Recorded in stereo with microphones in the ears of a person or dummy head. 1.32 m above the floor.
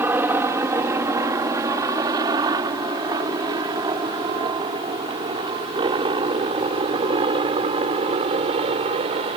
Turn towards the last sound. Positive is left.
turn(degrees=-35)  # may be behind; listen again after turning